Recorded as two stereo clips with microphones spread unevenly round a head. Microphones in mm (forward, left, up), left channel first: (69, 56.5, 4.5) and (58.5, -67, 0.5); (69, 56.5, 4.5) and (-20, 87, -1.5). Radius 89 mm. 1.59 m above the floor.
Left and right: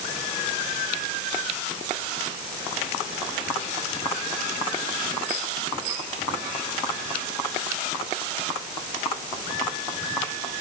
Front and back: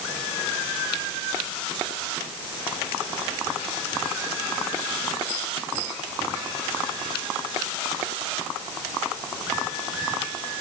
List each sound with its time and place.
Only background noise.